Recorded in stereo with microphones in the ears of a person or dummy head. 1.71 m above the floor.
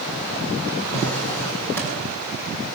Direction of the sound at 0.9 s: 5° left (ahead or behind).